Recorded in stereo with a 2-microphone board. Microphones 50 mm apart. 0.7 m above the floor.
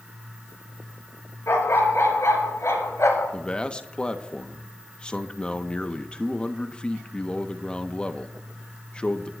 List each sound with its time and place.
1.5 s a dog barking: 65° left (ahead or behind), 3 m; by 3.3 s 80° left, 3 m
3.3 s a man speaking: 20° left (ahead or behind), 0.7 m